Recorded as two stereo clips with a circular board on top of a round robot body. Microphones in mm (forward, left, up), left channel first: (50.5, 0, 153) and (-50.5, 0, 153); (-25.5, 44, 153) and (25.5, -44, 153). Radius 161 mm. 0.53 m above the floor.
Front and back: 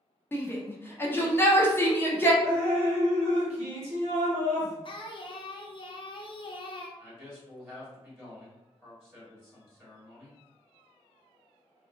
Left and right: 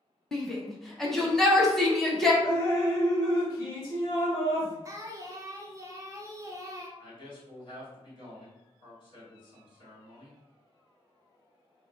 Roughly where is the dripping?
Behind.